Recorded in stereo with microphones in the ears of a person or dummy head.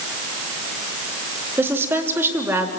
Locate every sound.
1.6 s a woman speaking: 10° right (ahead or behind), 3 m